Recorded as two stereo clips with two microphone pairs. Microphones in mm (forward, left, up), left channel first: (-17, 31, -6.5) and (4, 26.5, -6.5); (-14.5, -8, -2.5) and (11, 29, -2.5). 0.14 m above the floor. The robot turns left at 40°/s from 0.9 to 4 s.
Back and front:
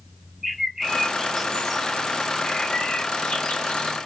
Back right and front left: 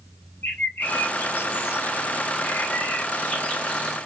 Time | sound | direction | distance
0.4 | a bird | 90° right | 0.9 m